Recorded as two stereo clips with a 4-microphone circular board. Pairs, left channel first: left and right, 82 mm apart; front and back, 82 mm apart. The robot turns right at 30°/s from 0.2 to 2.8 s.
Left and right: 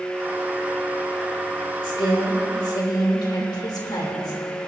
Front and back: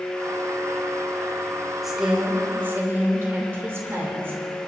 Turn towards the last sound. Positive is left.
turn(degrees=120)